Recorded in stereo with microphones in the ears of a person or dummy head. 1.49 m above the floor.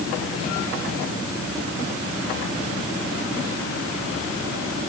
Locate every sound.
Only background noise.